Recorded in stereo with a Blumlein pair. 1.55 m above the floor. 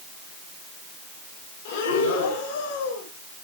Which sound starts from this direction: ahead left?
Breathing, at 1.6 s.